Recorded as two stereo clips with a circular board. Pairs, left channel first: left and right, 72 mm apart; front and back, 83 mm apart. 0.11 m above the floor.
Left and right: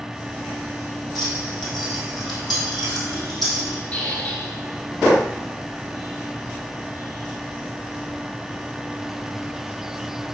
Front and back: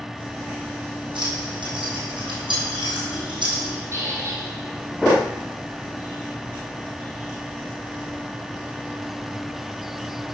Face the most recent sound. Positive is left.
turn(degrees=150)